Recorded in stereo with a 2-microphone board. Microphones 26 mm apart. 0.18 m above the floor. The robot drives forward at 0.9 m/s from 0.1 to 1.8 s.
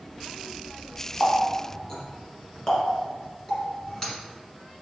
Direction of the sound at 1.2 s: 15° left (ahead or behind).